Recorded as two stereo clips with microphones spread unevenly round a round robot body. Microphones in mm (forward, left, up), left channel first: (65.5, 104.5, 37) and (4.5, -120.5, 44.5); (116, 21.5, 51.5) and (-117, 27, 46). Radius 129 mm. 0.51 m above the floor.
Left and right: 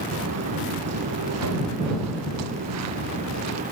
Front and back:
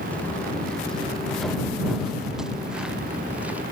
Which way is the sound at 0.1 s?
85° right.